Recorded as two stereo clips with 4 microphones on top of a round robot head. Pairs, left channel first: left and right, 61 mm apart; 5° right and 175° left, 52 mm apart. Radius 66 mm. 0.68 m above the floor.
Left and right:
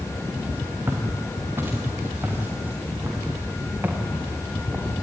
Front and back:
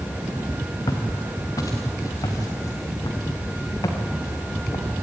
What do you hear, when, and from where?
0.9 s footsteps: 30° right, 4 m; by 4.9 s 20° right, 6 m